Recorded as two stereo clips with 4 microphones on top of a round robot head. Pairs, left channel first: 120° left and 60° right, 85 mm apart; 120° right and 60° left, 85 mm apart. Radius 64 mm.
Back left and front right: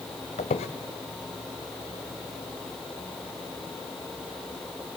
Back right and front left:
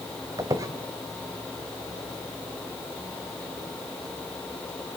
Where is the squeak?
115° left, 1.5 m.